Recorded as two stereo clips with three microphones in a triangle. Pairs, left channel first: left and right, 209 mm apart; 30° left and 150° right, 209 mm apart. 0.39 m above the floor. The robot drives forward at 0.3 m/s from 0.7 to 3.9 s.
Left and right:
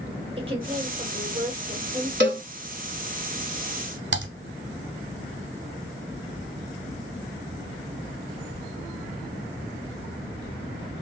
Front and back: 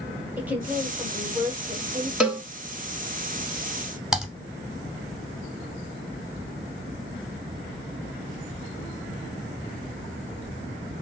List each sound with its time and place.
0.4 s a woman speaking: 75° right, 0.8 m; by 2.1 s 130° right, 0.9 m
2.2 s a cowbell: 65° right, 0.7 m; by 2.4 s 70° right, 0.6 m
4.1 s typing on a keyboard: 60° right, 0.6 m